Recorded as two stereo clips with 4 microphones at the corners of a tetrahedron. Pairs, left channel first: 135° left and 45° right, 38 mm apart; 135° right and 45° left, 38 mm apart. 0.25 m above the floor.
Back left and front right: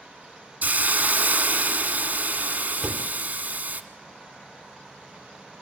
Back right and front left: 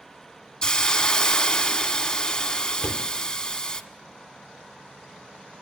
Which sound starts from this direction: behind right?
A door slam, at 2.8 s.